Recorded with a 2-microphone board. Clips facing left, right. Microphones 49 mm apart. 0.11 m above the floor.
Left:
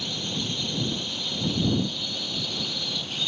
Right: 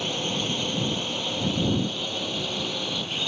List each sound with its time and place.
0.0 s a drone: 45° right (ahead or behind); by 3.3 s 35° right (ahead or behind)